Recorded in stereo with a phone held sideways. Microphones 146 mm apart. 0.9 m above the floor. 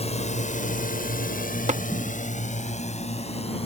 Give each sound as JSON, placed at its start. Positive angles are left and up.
{"t": 0.0, "sound": "a drone", "side_deg": 45}
{"t": 1.7, "sound": "tapping", "side_deg": -50}